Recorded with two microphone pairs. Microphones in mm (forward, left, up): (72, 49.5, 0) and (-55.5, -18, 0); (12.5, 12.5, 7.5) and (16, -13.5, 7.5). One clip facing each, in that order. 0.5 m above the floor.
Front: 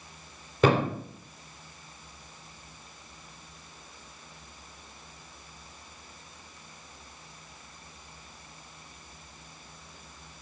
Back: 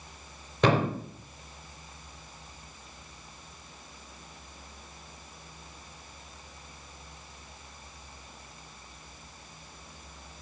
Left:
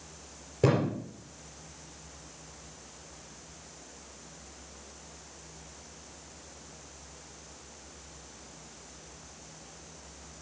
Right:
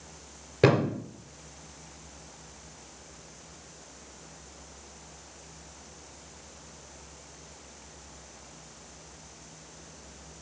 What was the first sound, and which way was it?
A thud, 60° right.